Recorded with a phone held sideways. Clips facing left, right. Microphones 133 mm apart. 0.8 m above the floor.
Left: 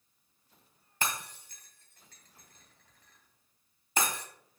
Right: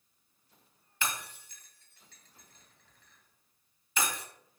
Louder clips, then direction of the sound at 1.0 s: Left 1 dB; 45° left (ahead or behind).